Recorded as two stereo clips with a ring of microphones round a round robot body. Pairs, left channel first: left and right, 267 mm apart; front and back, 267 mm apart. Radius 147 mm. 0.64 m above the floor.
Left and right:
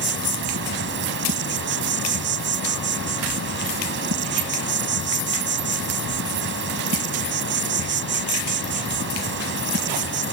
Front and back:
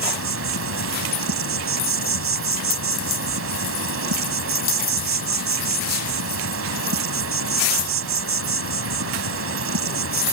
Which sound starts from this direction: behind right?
An insect, at 0.0 s.